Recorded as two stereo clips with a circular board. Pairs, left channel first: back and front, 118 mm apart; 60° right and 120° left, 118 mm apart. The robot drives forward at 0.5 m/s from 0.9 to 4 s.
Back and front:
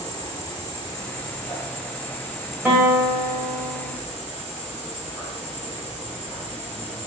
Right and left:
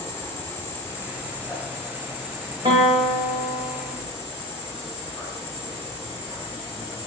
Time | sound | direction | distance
0.0 | an insect | 125° right | 1.3 m
2.6 | a guitar | 80° left | 1.2 m